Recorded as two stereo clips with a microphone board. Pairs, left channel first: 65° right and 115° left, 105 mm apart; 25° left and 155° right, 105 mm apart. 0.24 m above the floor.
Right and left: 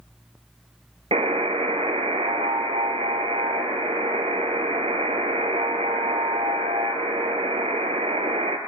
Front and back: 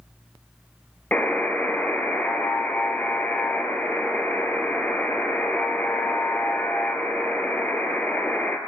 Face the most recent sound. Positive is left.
turn(degrees=95)